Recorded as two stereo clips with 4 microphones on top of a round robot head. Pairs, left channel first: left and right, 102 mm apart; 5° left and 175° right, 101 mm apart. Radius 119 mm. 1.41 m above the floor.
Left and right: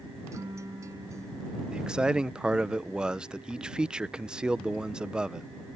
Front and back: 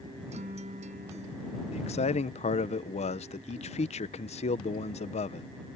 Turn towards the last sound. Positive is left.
turn(degrees=-10)